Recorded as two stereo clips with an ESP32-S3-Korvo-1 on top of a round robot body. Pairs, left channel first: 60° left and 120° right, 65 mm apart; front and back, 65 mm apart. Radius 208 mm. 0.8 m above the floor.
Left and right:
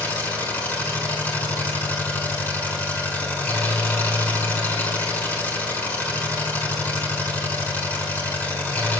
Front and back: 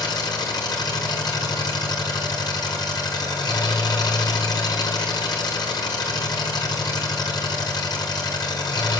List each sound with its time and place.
0.0 s an engine running: 5° right, 6 m